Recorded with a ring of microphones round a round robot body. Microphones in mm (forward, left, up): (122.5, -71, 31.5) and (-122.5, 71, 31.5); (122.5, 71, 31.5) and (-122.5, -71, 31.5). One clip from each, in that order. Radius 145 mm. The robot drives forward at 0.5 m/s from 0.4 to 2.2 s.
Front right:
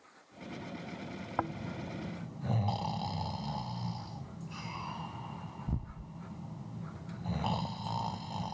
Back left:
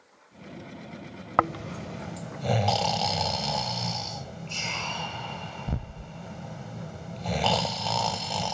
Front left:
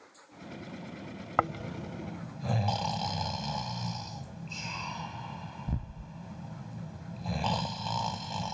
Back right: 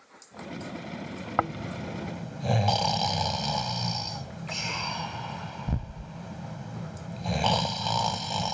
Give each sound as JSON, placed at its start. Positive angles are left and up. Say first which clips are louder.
{"t": 1.4, "sound": "snoring", "louder": "back left 12 dB, back right 1 dB", "azimuth_deg": 110}